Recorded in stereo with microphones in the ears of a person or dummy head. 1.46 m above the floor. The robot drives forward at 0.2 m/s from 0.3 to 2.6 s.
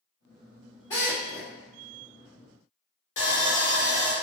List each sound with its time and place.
0.9 s a drill: 15° left (ahead or behind), 0.6 m
3.2 s sawing: 35° left (ahead or behind), 0.9 m